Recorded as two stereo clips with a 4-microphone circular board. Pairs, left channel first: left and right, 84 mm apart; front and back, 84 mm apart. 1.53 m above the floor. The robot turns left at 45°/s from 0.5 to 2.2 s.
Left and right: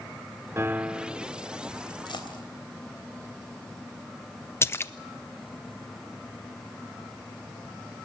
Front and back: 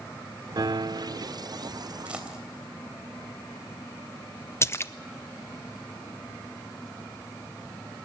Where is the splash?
45° left, 0.5 m.